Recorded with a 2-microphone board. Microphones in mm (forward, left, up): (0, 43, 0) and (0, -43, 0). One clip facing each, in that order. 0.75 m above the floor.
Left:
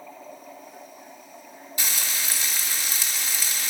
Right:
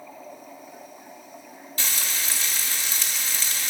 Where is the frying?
15° left (ahead or behind), 1.0 m.